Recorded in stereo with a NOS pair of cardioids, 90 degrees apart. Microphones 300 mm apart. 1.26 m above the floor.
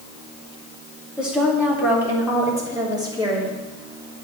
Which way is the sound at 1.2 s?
5° right.